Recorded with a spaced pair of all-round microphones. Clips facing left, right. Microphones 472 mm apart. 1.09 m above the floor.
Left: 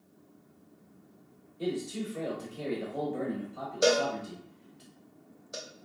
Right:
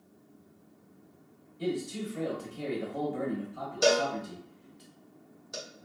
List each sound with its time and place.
1.6 s a man speaking: 25° right (ahead or behind), 0.9 m
3.8 s a cowbell: 15° right (ahead or behind), 0.7 m